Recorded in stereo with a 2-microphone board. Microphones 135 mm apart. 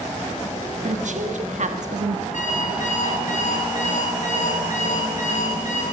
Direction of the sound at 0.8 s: 65° right (ahead or behind).